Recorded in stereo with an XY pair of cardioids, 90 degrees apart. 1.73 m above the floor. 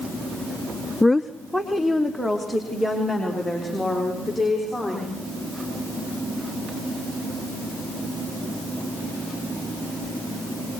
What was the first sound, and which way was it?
A woman speaking, 10° left.